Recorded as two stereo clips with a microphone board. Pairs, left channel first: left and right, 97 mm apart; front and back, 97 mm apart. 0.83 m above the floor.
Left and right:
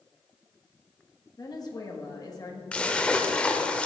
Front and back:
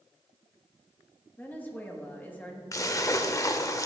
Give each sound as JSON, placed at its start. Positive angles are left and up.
{"t": 1.4, "sound": "a woman speaking", "azimuth_deg": 65, "distance_m": 1.0}
{"t": 2.7, "sound": "a splash", "azimuth_deg": 20, "distance_m": 0.5}